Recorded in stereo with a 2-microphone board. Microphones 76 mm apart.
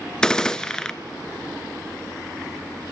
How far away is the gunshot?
About 0.6 m.